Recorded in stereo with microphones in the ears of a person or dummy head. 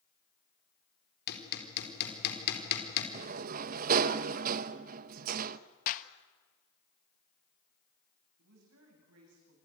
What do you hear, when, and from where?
1.3 s hammering: 55° left (ahead or behind), 4 m
3.1 s a sliding door: 45° right (ahead or behind), 0.8 m
5.9 s a clap: 45° left (ahead or behind), 1.1 m
8.4 s a woman speaking: 80° right, 9.5 m